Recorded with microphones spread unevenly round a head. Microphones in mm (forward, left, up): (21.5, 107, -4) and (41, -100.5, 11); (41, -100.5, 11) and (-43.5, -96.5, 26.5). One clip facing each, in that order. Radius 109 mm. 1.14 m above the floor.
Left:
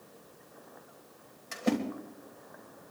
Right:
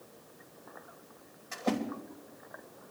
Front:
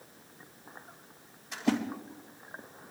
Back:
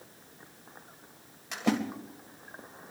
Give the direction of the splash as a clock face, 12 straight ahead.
7 o'clock.